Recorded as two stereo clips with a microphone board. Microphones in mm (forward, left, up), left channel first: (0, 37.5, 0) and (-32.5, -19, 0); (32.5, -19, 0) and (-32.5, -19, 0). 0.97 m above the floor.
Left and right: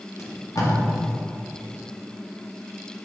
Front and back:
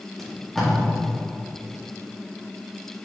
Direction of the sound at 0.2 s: 85° left.